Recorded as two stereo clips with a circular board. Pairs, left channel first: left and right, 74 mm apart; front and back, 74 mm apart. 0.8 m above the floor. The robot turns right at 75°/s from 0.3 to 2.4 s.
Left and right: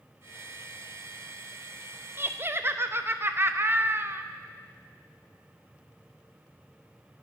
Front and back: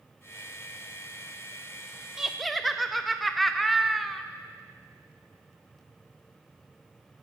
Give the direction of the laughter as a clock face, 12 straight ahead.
4 o'clock.